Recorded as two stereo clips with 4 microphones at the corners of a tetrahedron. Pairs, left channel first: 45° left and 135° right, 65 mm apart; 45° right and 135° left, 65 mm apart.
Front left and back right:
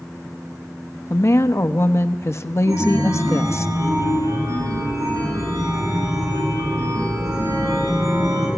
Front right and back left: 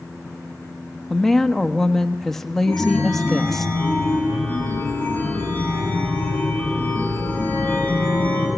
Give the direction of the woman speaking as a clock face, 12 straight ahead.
11 o'clock.